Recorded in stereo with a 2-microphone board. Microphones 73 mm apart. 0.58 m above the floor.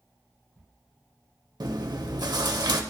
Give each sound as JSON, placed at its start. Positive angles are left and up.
{"t": 1.6, "sound": "chewing", "side_deg": -70, "distance_m": 0.8}